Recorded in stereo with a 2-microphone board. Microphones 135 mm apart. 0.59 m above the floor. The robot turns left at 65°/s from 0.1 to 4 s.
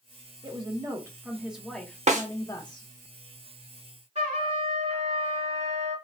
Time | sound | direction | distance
0.4 | a woman speaking | 100° right | 0.8 m
2.1 | a snare drum | 55° right (ahead or behind) | 0.7 m
4.2 | a trumpet | 55° right (ahead or behind) | 2 m